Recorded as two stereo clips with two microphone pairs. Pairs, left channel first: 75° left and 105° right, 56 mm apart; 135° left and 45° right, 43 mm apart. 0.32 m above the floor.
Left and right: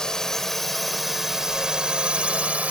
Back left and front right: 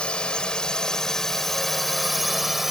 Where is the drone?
135° left; by 2.7 s 120° right.